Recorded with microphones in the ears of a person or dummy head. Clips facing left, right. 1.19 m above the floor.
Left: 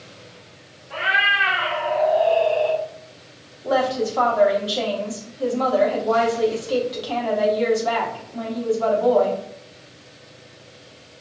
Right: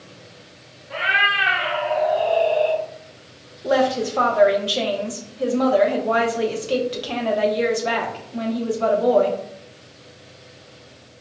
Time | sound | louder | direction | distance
0.9 | a cat meowing | even | 40° right (ahead or behind) | 1.5 m
3.6 | a woman speaking | right 2 dB | 30° right (ahead or behind) | 0.8 m